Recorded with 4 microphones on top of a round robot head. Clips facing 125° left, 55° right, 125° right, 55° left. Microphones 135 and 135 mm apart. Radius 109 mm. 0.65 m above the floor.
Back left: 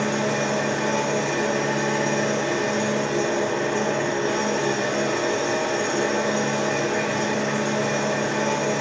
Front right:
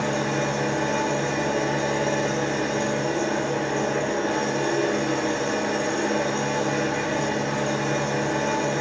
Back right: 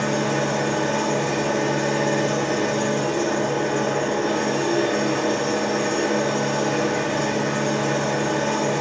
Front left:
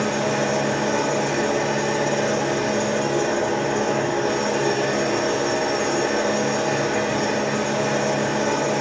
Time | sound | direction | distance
0.0 | an engine running | 125° left | 1.7 m